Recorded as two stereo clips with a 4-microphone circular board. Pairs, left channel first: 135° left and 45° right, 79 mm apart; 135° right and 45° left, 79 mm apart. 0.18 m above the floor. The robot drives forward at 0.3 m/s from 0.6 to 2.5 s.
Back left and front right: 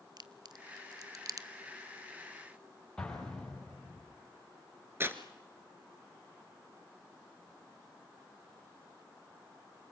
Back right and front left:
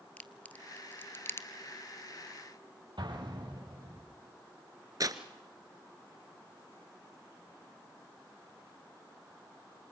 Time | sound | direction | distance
0.2 | a crack | 65° right | 1.1 m
3.0 | an explosion | 55° left | 5.5 m
5.0 | tearing paper | 10° left | 1.5 m